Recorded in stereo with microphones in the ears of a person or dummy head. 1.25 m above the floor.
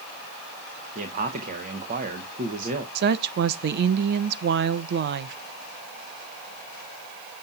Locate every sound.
0.9 s a man speaking: 45° right (ahead or behind), 0.9 m
3.0 s a woman speaking: 60° right (ahead or behind), 0.6 m